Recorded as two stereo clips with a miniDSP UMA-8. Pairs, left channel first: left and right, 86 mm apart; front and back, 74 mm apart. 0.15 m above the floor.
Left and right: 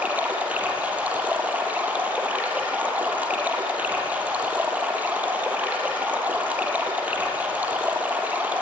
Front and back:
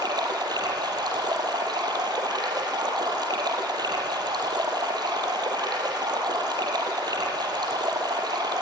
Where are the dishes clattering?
I don't hear dishes clattering.